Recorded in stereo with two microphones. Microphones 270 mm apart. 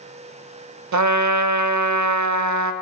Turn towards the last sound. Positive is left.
turn(degrees=-75)  # may be behind; listen again after turning